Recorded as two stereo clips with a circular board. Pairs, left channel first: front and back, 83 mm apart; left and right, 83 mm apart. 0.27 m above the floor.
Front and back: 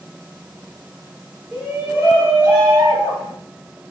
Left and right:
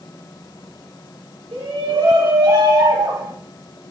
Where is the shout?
105° right, 5 m; by 3.3 s 115° right, 5 m.